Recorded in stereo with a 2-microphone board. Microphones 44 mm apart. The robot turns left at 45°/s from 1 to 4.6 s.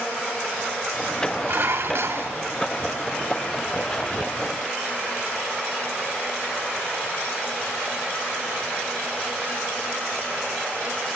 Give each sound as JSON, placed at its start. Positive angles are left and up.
{"t": 1.5, "sound": "dishes clattering", "azimuth_deg": -65, "distance_m": 2.5}